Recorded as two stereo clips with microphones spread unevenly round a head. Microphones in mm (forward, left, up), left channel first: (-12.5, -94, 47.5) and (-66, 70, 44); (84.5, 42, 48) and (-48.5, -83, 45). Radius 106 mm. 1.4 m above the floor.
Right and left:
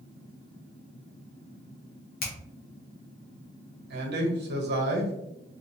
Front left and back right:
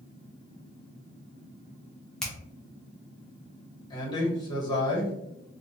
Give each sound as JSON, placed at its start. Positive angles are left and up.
{"t": 2.2, "sound": "a finger snap", "azimuth_deg": -40, "distance_m": 0.8}
{"t": 3.9, "sound": "a man speaking", "azimuth_deg": 110, "distance_m": 1.0}